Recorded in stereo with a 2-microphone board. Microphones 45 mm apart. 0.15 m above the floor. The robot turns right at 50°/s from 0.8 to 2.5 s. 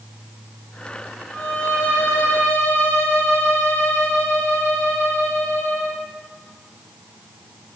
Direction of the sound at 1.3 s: 45° left.